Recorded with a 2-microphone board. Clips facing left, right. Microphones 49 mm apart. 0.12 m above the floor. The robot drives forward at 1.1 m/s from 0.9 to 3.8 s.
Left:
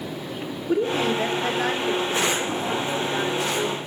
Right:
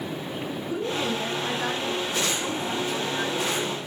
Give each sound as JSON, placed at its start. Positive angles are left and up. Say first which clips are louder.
{"t": 0.7, "sound": "a woman speaking", "louder": "left 7 dB", "side_deg": 55, "distance_m": 3.0}